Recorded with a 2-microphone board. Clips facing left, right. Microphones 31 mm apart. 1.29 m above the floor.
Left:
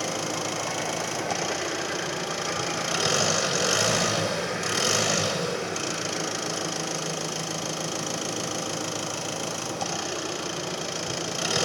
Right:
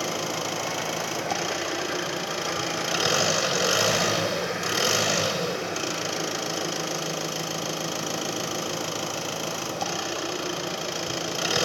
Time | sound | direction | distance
0.0 | an engine running | 10° right (ahead or behind) | 4 m